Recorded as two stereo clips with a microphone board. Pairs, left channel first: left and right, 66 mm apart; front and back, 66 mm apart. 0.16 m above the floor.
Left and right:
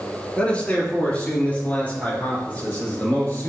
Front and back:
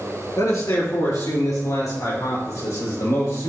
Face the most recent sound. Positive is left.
turn(degrees=25)